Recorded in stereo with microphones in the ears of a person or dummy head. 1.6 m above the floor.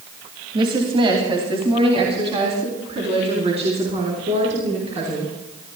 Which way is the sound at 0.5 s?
25° right (ahead or behind).